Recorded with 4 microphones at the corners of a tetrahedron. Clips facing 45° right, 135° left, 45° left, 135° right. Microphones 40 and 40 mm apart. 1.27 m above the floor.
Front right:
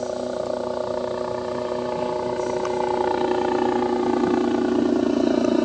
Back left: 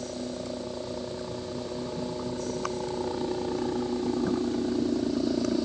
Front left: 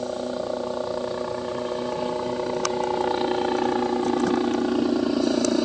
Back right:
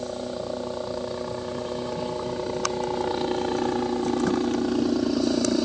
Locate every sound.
0.0 s a helicopter: 30° right